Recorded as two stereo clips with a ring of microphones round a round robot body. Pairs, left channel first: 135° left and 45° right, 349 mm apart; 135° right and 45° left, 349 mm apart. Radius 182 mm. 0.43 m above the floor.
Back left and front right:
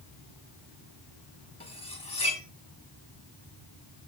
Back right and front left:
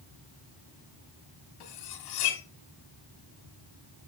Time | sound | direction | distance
1.6 | cutlery clinking | 150° right | 2 m